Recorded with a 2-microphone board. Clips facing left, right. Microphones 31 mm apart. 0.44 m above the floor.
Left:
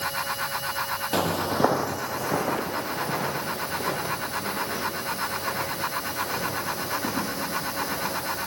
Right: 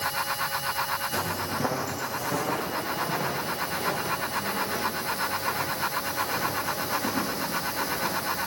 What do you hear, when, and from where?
1.1 s footsteps: 60° left (ahead or behind), 0.8 m; by 8.4 s 20° left (ahead or behind), 11 m